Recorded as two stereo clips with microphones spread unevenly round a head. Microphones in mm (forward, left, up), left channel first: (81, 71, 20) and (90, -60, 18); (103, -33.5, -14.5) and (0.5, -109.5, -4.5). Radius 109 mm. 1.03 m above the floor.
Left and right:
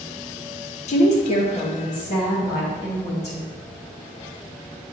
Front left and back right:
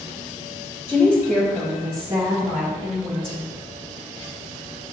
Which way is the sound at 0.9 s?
105° left.